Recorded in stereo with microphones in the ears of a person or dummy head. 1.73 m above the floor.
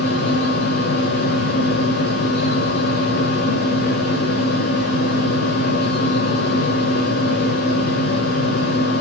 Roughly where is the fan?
Left.